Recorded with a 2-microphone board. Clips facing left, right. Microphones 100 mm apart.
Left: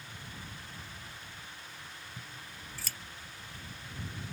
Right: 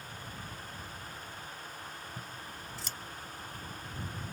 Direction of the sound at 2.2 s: 20° right (ahead or behind).